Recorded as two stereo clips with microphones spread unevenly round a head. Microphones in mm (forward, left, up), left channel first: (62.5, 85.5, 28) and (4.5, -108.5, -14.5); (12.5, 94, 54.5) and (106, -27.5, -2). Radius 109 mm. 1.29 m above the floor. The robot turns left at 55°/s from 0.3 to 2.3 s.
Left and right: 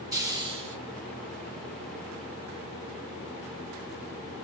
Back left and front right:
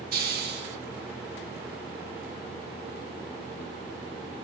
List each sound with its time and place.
0.1 s a hiss: 30° right, 1.0 m; by 0.8 s 55° right, 1.0 m